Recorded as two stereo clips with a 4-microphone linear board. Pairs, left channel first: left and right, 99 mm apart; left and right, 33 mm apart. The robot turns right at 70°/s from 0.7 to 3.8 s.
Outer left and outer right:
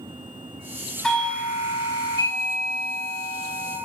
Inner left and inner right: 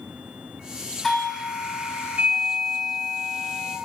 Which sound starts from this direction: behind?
A doorbell, at 1.0 s.